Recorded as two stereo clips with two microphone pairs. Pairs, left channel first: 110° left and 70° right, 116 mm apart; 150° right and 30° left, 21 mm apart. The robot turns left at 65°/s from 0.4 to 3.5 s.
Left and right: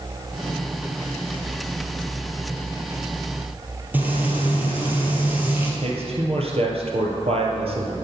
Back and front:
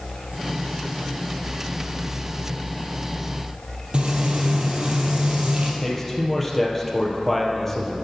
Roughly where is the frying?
Ahead.